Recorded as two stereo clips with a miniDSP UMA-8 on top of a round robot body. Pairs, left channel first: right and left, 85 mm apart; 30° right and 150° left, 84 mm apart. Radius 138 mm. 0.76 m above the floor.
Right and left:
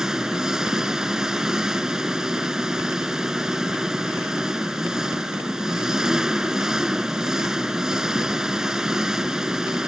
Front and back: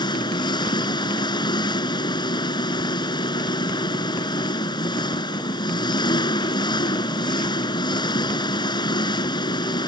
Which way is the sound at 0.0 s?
5° left.